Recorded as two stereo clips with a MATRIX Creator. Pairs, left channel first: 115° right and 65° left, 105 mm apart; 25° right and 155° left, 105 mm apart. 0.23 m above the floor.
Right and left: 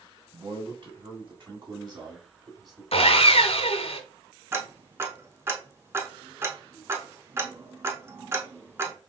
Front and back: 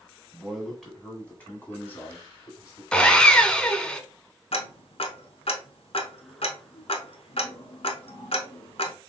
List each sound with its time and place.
0.3 s a man speaking: 75° left, 2.0 m; by 2.8 s 25° left, 2 m
2.9 s sawing: 105° right, 0.5 m
4.5 s ticking: straight ahead, 0.7 m